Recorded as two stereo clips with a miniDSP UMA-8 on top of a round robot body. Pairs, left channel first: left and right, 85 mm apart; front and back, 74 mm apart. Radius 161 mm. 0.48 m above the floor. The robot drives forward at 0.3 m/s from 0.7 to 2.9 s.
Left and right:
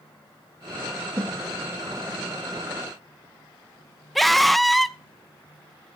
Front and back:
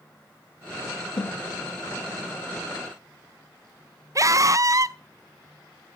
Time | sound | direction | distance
1.2 | a snare drum | 20° right | 2.5 m
4.2 | a scream | straight behind | 0.8 m